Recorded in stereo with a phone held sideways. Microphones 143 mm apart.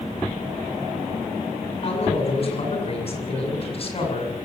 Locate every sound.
1.8 s a man speaking: 45° left (ahead or behind), 7 m